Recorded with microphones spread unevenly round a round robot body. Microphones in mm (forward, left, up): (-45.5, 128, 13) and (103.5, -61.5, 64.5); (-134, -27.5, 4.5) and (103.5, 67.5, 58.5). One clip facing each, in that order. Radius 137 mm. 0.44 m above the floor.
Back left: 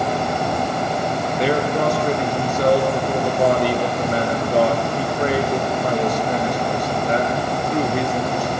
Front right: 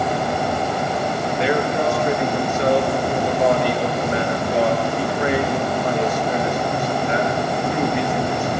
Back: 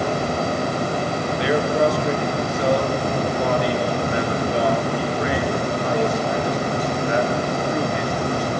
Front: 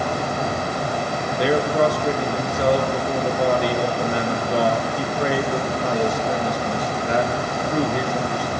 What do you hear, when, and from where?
1.4 s a man speaking: 75° left, 6.5 m